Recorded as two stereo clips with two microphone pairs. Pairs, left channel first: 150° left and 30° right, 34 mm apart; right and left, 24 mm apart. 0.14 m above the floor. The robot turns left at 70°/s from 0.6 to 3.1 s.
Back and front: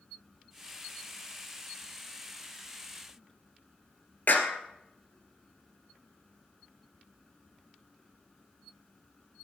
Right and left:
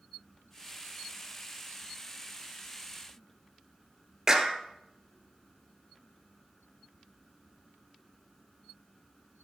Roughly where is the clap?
Behind left.